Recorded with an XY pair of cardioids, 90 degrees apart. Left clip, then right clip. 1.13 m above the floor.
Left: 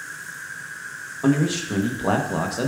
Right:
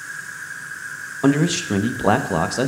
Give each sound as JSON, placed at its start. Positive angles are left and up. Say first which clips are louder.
{"t": 0.0, "sound": "an insect", "louder": "right 3 dB", "azimuth_deg": -50, "distance_m": 2.5}
{"t": 1.2, "sound": "a man speaking", "louder": "right 3 dB", "azimuth_deg": -50, "distance_m": 0.8}